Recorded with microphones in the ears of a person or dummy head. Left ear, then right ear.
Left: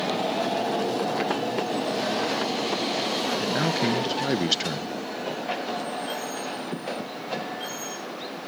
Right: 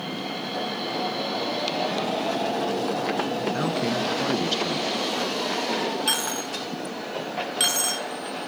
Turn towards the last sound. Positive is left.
turn(degrees=-60)  # may be behind; listen again after turning